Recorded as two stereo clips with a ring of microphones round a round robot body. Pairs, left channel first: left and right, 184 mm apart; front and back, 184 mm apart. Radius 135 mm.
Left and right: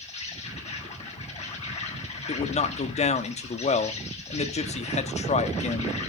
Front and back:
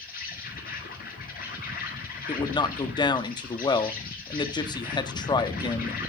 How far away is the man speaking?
About 1.0 m.